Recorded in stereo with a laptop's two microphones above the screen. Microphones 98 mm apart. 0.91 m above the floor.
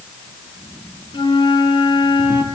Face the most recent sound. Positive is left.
turn(degrees=55)  # may be behind; listen again after turning